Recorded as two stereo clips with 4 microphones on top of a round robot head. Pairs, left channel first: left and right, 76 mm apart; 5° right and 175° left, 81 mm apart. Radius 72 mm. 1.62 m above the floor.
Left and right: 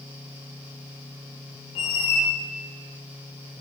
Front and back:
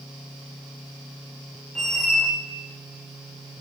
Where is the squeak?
75° left, 0.7 m.